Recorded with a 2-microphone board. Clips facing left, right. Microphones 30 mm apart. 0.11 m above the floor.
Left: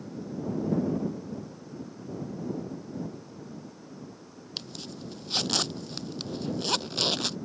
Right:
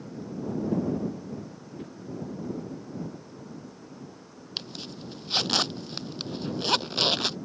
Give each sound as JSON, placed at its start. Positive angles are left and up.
{"t": 1.8, "sound": "a whoosh", "side_deg": -55}
{"t": 4.6, "sound": "a zipper", "side_deg": -20}